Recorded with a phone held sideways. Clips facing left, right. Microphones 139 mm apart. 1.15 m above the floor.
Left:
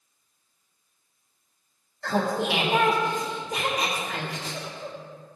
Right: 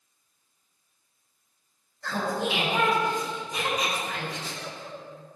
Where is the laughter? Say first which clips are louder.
Left 3 dB; 65° left (ahead or behind), 2.5 m.